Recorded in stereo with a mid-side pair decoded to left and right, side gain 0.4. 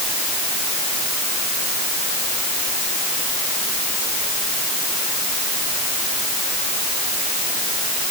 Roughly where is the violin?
I don't hear a violin.